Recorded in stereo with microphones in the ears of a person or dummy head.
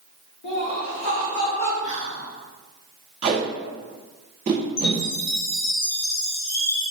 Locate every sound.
0.4 s laughter: 60° left (ahead or behind), 1.1 m; by 1.7 s 80° left, 1.6 m
1.8 s whispering: 45° left (ahead or behind), 1.4 m
3.2 s tape being pulled: 30° right (ahead or behind), 1.0 m
4.8 s a chime: 50° left (ahead or behind), 0.9 m